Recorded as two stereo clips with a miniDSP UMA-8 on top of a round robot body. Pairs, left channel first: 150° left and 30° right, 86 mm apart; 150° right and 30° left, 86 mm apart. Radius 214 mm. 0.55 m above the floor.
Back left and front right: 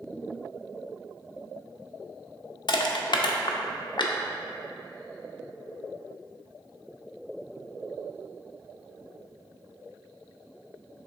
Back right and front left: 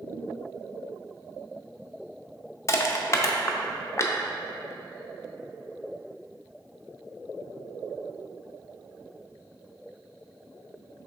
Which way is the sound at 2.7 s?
160° left.